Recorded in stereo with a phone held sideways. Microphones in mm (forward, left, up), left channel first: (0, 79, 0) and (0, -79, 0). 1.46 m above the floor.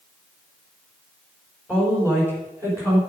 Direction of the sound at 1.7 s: 5° left (ahead or behind).